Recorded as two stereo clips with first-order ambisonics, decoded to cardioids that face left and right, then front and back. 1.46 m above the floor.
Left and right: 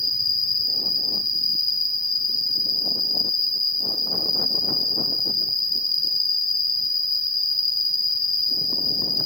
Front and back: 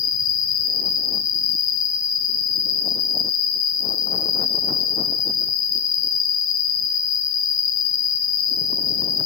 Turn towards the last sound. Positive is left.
turn(degrees=20)